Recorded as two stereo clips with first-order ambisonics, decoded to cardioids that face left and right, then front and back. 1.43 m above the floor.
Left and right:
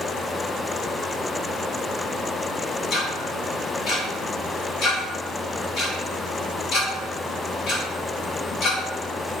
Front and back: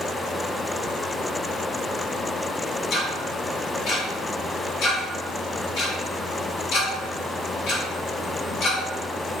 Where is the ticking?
35° left, 1.8 m.